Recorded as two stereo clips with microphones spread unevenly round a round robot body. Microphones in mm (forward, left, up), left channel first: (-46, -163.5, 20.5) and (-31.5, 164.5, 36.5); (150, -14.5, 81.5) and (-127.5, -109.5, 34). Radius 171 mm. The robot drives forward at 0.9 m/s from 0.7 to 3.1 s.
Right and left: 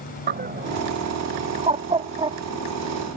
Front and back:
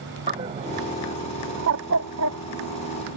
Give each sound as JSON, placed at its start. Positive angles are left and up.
{"t": 0.3, "sound": "a bird", "azimuth_deg": 145}